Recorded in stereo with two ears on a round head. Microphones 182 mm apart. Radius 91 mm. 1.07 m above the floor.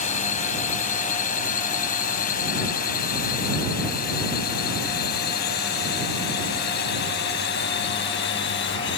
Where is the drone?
35° left (ahead or behind); by 9.0 s 60° left (ahead or behind).